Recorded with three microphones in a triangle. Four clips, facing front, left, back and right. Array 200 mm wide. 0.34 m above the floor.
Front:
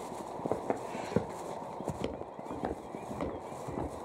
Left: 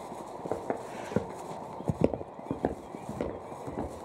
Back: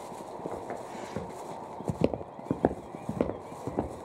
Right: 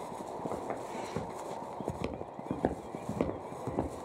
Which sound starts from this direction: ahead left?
Footsteps, at 0.5 s.